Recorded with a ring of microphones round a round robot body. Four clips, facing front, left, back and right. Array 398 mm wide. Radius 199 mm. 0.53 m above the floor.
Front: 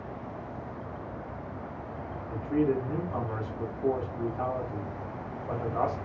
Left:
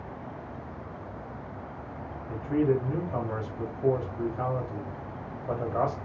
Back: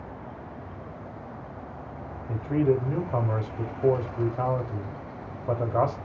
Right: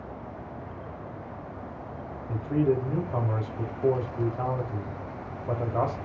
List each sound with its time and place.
2.3 s a man speaking: 170° right, 0.8 m